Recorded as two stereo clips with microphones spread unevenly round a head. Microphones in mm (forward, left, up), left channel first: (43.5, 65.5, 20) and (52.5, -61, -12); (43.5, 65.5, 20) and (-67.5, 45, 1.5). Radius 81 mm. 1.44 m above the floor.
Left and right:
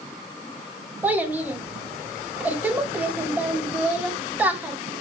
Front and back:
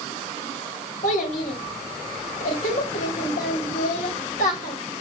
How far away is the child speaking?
About 2.5 m.